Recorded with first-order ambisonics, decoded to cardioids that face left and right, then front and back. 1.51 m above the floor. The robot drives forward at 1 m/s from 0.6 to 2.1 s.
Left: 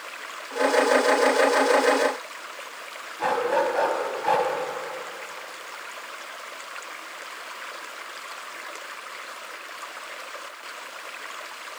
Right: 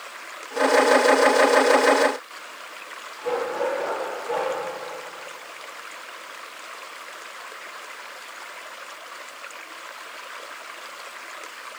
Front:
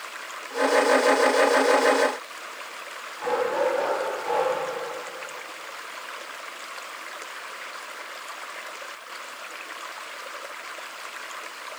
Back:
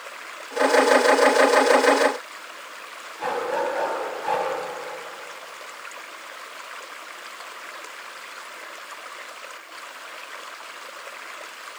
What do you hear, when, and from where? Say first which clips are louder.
3.2 s a dog barking: left 3 dB, front 1 dB; 115° left, 4.5 m